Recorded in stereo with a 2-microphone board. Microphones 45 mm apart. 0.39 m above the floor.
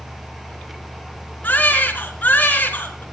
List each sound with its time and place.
1.4 s a baby crying: 40° left (ahead or behind), 4 m